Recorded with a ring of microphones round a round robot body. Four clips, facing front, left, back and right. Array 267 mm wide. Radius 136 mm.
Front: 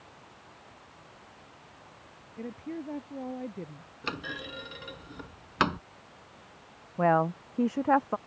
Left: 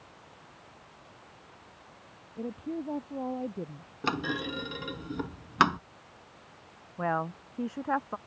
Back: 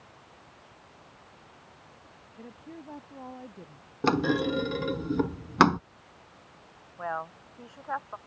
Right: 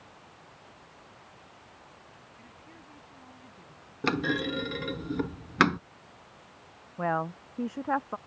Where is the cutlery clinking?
No cutlery clinking in this recording.